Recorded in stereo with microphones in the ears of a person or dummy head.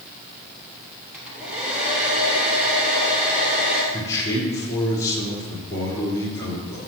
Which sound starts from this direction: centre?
A hair dryer, at 1.1 s.